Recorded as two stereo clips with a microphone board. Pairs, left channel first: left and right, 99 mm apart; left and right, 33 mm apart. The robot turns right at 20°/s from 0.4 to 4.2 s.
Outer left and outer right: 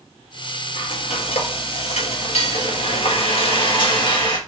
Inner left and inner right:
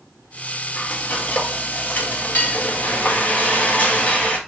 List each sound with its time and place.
0.8 s frying: 65° left, 1.6 m; by 4.4 s 135° left, 1.6 m